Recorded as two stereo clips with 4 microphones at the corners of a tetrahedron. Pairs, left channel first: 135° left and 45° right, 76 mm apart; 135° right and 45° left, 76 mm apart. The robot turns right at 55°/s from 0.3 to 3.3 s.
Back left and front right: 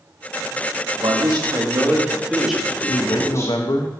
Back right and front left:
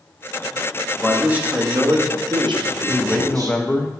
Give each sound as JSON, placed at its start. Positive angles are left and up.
{"t": 1.0, "sound": "a man speaking", "azimuth_deg": -40, "distance_m": 1.4}
{"t": 2.9, "sound": "a man speaking", "azimuth_deg": 130, "distance_m": 0.8}